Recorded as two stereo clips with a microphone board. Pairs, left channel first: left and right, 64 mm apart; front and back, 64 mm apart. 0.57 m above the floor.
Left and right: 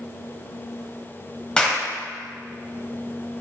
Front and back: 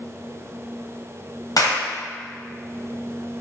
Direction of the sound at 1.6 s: 15° left.